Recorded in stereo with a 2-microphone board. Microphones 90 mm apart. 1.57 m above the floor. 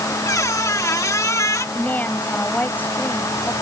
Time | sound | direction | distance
0.2 | a squeak | 35° left (ahead or behind) | ?
1.8 | a woman speaking | 15° left (ahead or behind) | ?